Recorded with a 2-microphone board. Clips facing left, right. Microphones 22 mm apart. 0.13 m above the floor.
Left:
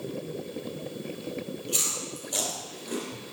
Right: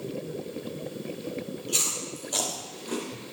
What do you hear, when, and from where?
1.7 s chewing: 10° right (ahead or behind), 4.5 m